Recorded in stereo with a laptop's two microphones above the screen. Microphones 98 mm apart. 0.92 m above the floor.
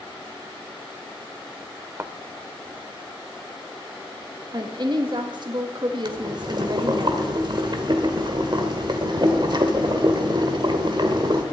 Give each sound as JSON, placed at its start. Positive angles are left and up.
{"t": 2.0, "sound": "a thud", "side_deg": -30, "distance_m": 0.7}
{"t": 4.5, "sound": "a woman speaking", "side_deg": -50, "distance_m": 1.6}
{"t": 6.0, "sound": "boiling", "side_deg": -50, "distance_m": 1.8}